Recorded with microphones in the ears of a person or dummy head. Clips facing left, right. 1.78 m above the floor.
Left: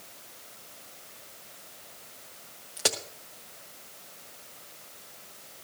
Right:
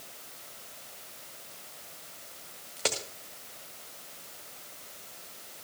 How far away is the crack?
About 1.2 m.